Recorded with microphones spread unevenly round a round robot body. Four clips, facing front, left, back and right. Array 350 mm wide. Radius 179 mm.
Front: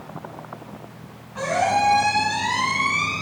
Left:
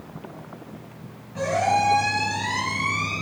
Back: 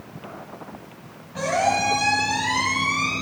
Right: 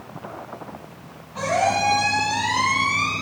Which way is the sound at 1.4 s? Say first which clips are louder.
Right 1 dB, front 1 dB; 140° left.